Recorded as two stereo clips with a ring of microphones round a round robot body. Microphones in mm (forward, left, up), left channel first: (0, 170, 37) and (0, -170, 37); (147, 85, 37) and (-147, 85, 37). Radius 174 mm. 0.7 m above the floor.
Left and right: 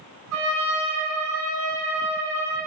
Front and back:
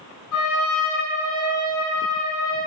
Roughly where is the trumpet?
Ahead right.